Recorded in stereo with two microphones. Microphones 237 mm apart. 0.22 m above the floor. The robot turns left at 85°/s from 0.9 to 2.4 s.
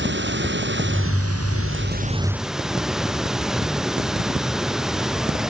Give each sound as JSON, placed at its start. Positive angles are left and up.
{"t": 0.0, "sound": "running water", "azimuth_deg": -50}